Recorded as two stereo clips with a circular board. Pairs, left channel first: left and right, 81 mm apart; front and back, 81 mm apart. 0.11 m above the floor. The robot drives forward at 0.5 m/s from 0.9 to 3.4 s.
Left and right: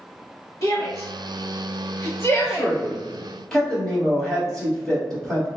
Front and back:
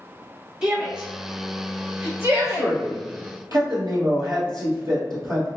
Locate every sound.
0.6 s a shout: 105° left, 1.7 m; by 2.7 s 135° left, 2 m
2.4 s a man speaking: 170° left, 1.4 m; by 5.5 s 175° left, 1.8 m